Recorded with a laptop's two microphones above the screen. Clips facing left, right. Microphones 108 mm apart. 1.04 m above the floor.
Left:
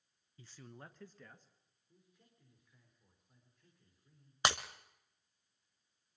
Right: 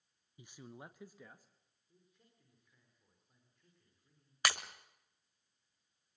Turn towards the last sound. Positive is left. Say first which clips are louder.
# left 3 dB
turn(degrees=25)  # may be behind; listen again after turning